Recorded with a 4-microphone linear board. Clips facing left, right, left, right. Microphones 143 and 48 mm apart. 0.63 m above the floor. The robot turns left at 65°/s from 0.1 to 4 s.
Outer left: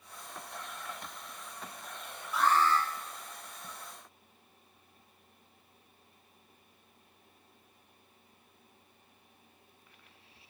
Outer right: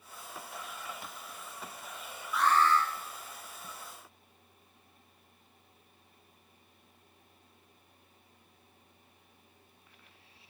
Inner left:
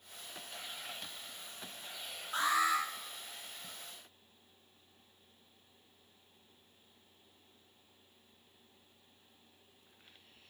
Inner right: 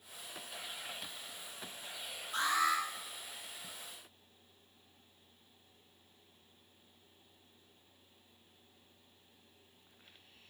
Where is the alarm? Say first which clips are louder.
Outer right 1 dB, inner left 1 dB; 120° left, 1.4 m; by 2.8 s 85° left, 1.4 m.